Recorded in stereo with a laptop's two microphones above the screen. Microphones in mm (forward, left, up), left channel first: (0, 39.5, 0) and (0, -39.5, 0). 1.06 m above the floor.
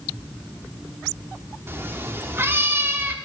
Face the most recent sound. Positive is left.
turn(degrees=-30)  # may be behind; listen again after turning